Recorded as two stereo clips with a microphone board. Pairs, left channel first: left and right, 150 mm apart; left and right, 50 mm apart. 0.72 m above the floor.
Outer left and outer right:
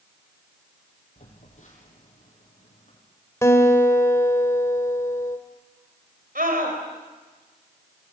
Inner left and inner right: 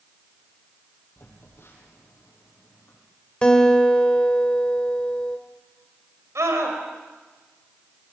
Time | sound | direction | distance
1.2 | a phone buzzing | 50° left (ahead or behind) | 6.5 m
3.4 | a guitar | 20° left (ahead or behind) | 2.0 m
6.3 | a scream | 75° right (ahead or behind) | 4 m